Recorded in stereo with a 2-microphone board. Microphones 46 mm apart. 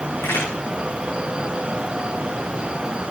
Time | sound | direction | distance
0.2 | a crack | 80° left | 9 m